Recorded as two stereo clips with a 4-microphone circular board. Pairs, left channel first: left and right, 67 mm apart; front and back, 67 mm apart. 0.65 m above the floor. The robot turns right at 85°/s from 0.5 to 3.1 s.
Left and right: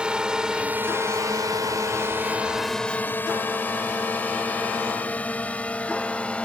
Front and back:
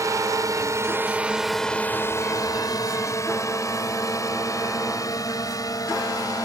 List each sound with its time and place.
0.0 s a drone: 165° right; by 6.5 s 20° left